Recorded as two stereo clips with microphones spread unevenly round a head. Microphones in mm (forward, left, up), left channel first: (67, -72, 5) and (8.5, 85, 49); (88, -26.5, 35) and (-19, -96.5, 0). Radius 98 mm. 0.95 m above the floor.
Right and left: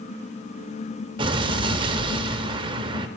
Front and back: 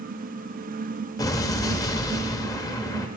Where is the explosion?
75° left, 0.8 m.